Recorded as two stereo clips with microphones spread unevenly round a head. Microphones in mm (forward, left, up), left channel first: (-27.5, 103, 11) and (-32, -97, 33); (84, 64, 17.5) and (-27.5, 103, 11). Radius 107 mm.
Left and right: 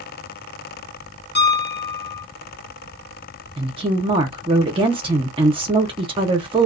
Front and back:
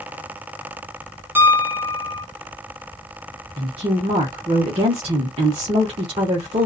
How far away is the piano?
About 1.2 m.